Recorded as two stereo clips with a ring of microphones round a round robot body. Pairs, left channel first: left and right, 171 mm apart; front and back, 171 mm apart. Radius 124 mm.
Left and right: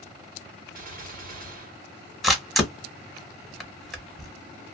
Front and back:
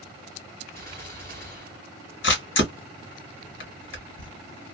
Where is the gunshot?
75° right, 1.6 m.